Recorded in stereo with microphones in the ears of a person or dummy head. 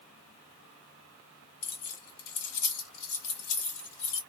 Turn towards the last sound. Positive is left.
turn(degrees=80)